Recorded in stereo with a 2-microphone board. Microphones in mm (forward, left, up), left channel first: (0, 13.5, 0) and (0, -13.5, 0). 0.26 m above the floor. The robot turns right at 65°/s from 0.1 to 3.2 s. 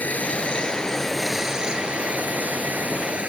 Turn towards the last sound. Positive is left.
turn(degrees=-50)